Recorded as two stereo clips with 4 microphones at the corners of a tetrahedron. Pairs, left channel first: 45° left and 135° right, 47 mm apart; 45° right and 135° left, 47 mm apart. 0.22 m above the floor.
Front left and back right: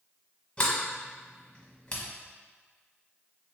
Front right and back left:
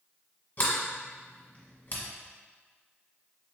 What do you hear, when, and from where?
0.6 s a sliding door: 10° right, 1.0 m